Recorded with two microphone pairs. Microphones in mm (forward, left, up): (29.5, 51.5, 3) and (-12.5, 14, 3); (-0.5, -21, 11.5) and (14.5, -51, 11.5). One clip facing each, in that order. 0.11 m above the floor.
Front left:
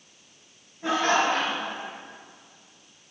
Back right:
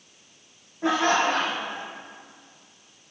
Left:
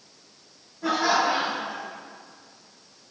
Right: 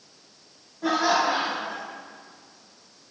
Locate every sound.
0.8 s laughter: 125° right, 4 m